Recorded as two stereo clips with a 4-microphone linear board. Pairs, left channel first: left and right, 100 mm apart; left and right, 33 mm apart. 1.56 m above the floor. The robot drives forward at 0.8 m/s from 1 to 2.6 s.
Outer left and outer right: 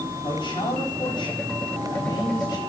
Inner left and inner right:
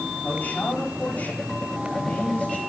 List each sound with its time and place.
0.2 s a man speaking: 55° left (ahead or behind), 4 m; by 2.6 s 45° left (ahead or behind), 5 m